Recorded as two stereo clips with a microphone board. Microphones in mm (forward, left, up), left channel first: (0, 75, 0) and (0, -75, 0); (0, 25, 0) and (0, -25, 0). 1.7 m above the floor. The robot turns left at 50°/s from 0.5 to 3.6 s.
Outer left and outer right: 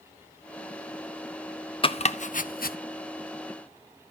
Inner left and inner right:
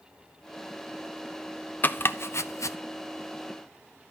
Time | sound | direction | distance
1.8 | chopping | 35° left (ahead or behind) | 0.7 m